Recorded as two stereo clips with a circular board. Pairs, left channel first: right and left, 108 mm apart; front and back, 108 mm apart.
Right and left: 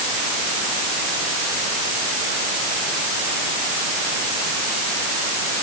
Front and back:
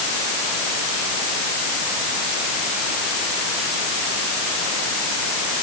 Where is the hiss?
No hiss in this recording.